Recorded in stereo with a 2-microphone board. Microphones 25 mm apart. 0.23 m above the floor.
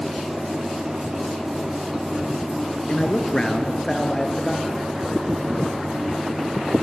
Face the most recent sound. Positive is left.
turn(degrees=10)  # may be behind; listen again after turning